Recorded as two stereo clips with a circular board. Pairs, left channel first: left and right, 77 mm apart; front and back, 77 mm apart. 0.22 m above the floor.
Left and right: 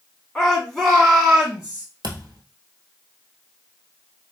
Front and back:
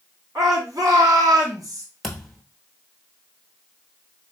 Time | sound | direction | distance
0.3 | a shout | 170° left | 2.5 m
2.0 | a thud | 85° right | 1.0 m